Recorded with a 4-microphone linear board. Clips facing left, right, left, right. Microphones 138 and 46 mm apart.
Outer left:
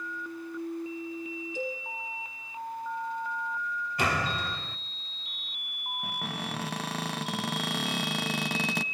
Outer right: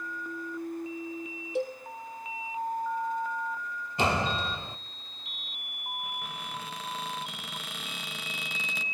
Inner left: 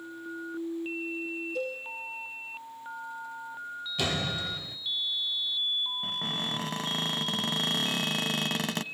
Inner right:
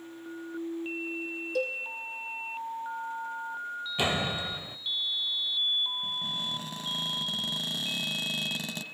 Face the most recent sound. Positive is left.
turn(degrees=75)  # may be behind; listen again after turning